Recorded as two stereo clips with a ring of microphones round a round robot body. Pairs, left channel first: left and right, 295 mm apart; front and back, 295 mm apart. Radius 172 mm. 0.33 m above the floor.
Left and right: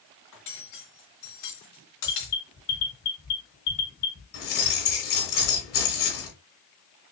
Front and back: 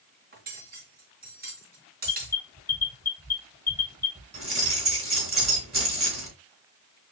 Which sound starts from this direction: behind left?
Cutlery clinking, at 0.3 s.